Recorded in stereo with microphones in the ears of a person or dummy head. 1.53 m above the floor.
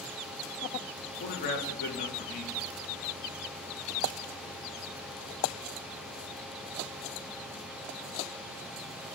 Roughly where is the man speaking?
Left.